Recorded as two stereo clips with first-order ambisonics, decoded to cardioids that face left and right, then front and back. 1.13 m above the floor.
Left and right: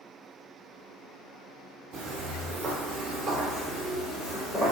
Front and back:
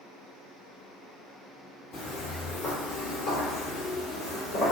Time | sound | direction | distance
1.9 | footsteps | 45° right | 1.4 m